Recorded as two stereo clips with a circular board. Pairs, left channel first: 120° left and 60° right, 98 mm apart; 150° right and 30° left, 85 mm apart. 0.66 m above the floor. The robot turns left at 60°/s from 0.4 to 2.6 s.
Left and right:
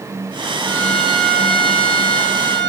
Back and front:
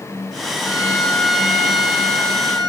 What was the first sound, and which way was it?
A violin, 170° left.